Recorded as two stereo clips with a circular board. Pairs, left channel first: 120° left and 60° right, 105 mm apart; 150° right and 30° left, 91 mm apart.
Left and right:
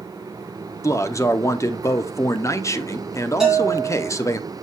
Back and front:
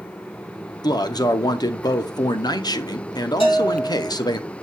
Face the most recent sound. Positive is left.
turn(degrees=-145)